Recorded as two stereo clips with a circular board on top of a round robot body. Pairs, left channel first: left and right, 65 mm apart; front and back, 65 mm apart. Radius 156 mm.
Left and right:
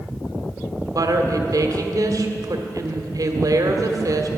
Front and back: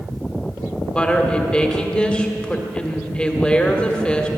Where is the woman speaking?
75° right, 1.6 m.